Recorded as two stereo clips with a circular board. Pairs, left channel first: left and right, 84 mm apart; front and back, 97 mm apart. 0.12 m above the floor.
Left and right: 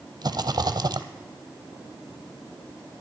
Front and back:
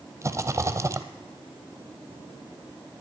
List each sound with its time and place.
0.2 s a rattle: 125° right, 0.8 m